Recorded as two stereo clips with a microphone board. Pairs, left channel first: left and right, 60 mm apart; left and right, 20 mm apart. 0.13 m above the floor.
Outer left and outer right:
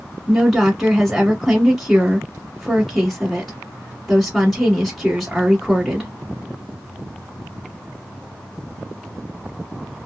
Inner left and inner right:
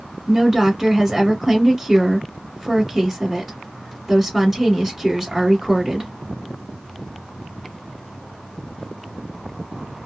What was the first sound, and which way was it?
A woman speaking, centre (ahead or behind).